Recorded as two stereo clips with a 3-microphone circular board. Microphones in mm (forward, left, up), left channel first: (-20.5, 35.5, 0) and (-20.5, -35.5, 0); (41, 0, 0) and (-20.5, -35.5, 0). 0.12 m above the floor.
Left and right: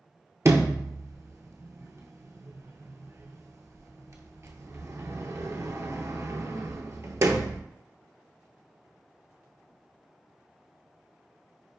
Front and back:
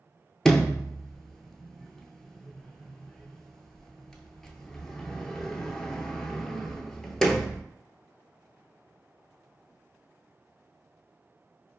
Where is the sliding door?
55° right, 0.5 m.